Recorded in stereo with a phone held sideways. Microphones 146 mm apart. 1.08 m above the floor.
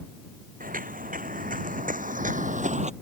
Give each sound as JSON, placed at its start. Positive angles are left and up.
{"t": 0.6, "sound": "footsteps", "side_deg": -70}